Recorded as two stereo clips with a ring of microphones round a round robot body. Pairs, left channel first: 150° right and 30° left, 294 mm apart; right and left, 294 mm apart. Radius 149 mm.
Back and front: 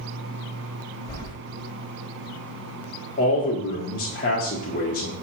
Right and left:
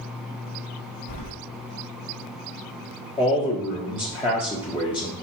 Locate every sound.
1.1 s keys jangling: 70° right, 1.7 m
3.2 s a man speaking: 145° right, 1.2 m